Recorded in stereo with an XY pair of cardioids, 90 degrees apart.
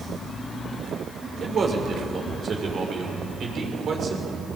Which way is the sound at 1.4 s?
50° right.